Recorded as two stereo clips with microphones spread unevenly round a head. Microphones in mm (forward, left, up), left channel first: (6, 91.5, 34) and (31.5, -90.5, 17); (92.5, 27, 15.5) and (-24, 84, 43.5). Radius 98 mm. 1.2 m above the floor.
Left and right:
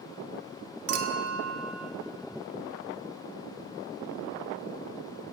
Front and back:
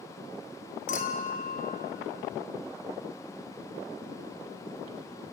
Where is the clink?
75° right, 1.7 m.